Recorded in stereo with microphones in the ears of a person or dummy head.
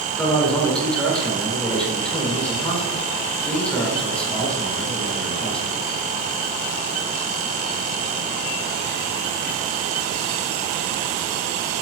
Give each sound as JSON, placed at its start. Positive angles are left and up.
{"t": 0.2, "sound": "a man speaking", "side_deg": 10, "distance_m": 1.6}